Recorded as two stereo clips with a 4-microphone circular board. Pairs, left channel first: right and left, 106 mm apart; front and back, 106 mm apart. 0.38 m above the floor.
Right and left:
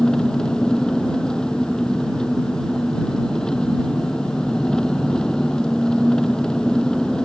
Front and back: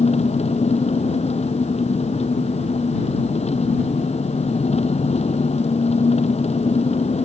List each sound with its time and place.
0.0 s an engine running: 5° right